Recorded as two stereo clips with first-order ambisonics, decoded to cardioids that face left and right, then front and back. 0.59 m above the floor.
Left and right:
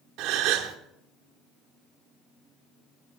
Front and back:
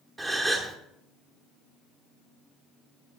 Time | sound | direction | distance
0.2 | a gasp | 105° right | 1.0 m